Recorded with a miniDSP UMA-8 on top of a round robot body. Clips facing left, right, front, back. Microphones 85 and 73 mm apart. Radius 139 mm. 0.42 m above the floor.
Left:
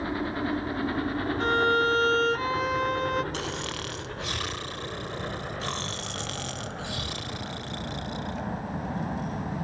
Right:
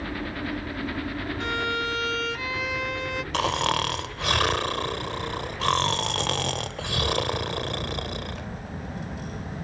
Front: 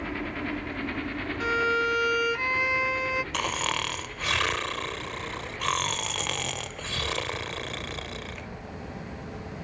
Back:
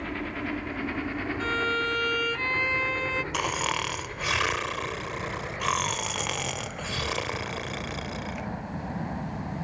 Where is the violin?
75° left.